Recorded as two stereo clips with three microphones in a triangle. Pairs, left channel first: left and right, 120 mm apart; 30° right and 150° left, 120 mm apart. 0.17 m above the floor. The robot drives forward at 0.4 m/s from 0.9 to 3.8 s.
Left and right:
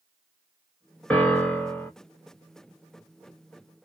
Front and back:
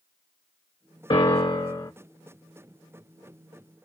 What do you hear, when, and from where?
1.1 s a piano: 15° left, 1.2 m; by 1.9 s 20° left, 0.9 m